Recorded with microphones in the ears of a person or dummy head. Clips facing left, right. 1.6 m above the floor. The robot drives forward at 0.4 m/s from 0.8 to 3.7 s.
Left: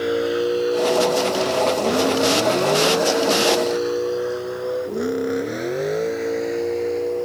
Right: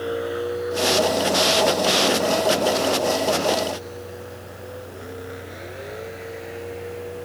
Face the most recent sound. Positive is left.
turn(degrees=45)  # may be behind; listen again after turning